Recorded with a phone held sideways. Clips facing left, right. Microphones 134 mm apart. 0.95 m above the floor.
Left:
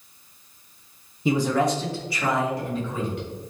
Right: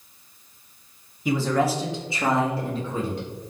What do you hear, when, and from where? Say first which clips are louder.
1.2 s a man speaking: left 1 dB; 25° left (ahead or behind), 0.6 m; by 3.2 s 35° right (ahead or behind), 2.0 m